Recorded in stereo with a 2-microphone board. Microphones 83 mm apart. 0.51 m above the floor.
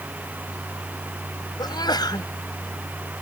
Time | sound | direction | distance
1.6 | a sneeze | 55° left (ahead or behind) | ?